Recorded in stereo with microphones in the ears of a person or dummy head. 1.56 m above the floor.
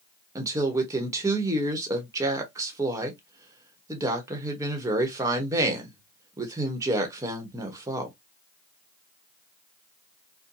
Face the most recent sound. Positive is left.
turn(degrees=-15)  # may be behind; listen again after turning